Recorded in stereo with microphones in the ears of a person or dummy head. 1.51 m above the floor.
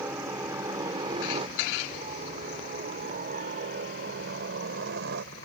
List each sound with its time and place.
0.0 s a helicopter: 15° right (ahead or behind); by 5.5 s 65° right (ahead or behind)